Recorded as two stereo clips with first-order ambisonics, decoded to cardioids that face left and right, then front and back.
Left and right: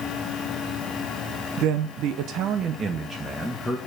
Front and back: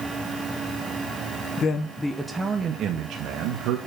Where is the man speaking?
65° right, 1.2 m; by 3.8 s straight behind, 1.4 m.